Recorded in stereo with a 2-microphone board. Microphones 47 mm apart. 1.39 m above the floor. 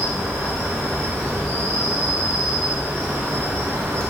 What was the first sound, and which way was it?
An insect, 80° right.